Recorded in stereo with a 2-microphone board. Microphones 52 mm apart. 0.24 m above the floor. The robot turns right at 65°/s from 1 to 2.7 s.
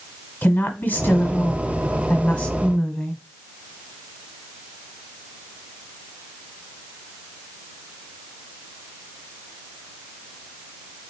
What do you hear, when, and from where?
0.4 s a woman speaking: 55° left, 1.4 m; by 3.2 s 165° left, 1.4 m